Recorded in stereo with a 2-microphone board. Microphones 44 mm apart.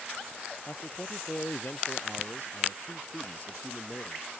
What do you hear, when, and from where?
0.7 s a man speaking: 45° left (ahead or behind)